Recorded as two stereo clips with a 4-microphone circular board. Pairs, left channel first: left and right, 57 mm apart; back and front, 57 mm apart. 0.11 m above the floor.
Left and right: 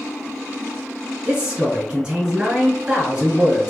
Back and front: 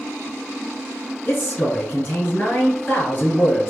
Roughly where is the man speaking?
Behind.